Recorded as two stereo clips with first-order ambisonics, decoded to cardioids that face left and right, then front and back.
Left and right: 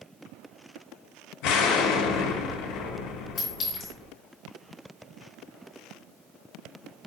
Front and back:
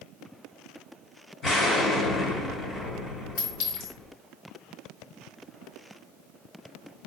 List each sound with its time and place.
1.4 s an explosion: 70° left, 0.7 m
3.4 s a clink: 25° left, 1.6 m